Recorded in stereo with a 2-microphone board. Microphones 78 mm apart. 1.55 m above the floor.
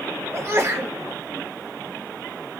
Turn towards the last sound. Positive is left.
turn(degrees=-35)  # may be behind; listen again after turning